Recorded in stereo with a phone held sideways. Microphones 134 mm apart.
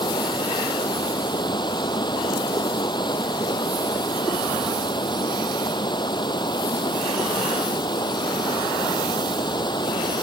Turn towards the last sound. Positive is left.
turn(degrees=35)  # may be behind; listen again after turning